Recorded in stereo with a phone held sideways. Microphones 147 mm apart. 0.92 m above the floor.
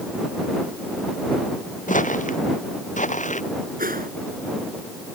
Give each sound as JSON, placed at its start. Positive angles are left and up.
{"t": 1.9, "sound": "footsteps", "side_deg": 60}
{"t": 3.8, "sound": "a whoosh", "side_deg": -75}